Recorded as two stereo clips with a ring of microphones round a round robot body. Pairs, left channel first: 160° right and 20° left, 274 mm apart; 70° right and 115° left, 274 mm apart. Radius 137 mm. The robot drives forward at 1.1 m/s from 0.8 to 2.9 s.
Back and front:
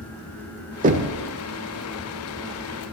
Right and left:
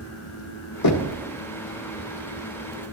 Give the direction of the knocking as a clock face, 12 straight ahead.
1 o'clock.